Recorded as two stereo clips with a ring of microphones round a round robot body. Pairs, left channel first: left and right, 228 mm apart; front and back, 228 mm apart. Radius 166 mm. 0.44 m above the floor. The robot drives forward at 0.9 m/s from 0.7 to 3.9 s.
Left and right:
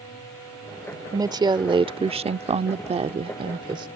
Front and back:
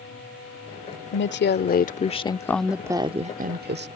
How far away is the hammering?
I don't hear hammering.